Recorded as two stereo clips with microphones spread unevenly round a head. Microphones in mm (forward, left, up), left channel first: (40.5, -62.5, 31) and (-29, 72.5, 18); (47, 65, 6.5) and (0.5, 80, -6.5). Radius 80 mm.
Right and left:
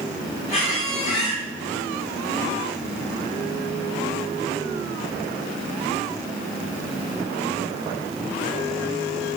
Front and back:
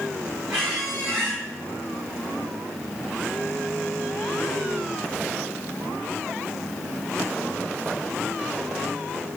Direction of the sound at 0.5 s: 110° right.